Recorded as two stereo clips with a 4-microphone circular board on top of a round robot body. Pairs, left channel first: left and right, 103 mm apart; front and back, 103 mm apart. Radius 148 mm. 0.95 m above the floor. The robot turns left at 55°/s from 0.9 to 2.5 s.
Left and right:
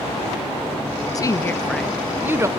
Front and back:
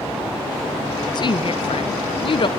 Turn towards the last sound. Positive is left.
turn(degrees=-35)